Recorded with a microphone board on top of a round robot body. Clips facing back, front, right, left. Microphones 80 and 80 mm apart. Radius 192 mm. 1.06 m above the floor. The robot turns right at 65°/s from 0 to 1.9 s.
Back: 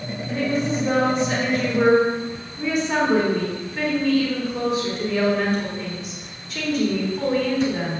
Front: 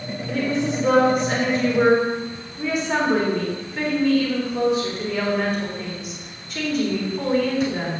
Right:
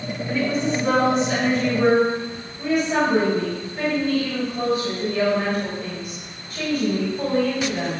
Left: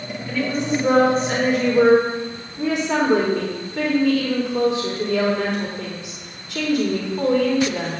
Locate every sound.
0.3 s a woman speaking: 15° right, 4 m; by 8.0 s 90° left, 4 m